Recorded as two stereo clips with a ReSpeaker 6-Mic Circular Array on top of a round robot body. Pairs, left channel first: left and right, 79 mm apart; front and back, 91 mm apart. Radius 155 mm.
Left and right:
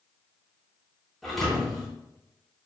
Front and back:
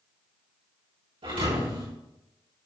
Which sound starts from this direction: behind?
A thud, at 1.2 s.